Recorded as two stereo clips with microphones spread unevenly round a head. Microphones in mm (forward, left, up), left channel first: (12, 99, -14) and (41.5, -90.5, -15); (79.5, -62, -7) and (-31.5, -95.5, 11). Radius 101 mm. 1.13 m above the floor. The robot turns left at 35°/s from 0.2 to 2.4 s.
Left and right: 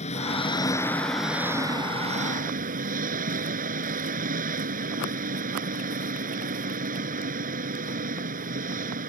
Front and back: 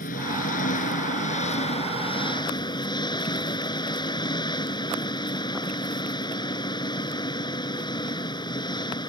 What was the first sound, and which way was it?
An engine running, 40° left.